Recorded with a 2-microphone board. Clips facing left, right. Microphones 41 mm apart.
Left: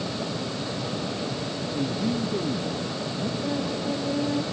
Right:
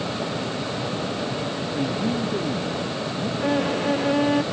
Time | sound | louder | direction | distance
1.6 | a man speaking | right 1 dB | 10° right (ahead or behind) | ?
3.4 | a violin | right 9 dB | 80° right | ?